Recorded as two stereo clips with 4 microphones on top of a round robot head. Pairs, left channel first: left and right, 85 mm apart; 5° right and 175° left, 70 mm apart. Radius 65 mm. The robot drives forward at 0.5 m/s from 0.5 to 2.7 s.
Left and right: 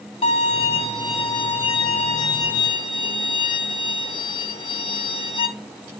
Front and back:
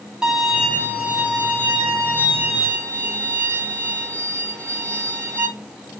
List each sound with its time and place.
0.2 s a violin: 95° left, 2.5 m; by 5.5 s 120° left, 2.5 m